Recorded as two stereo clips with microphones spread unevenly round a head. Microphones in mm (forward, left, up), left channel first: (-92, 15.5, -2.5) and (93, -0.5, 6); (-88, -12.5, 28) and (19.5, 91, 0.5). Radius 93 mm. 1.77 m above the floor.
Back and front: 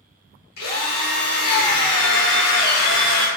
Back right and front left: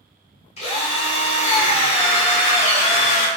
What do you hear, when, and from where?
0.6 s a drill: 160° right, 2.0 m